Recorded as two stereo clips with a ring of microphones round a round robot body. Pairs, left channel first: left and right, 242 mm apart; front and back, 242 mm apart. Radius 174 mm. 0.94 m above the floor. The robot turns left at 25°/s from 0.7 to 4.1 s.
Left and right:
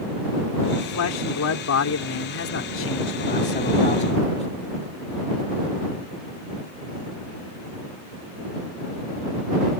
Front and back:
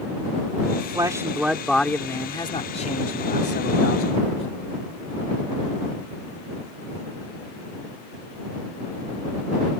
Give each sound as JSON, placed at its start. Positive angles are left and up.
{"t": 0.8, "sound": "a man speaking", "azimuth_deg": 110}